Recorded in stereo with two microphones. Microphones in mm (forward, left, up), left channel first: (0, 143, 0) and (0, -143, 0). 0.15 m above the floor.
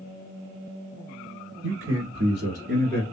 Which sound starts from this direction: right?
A man speaking, at 1.6 s.